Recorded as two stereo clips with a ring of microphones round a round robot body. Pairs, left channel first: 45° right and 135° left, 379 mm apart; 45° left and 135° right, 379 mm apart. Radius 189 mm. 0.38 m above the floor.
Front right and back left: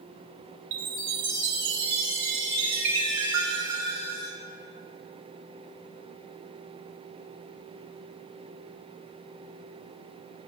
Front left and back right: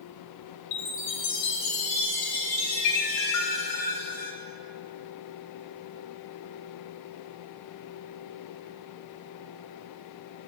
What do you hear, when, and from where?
0.7 s a chime: 90° left, 2 m